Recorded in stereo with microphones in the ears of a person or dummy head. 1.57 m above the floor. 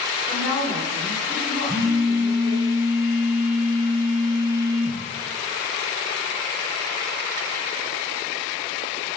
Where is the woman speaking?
25° left (ahead or behind), 3.5 m.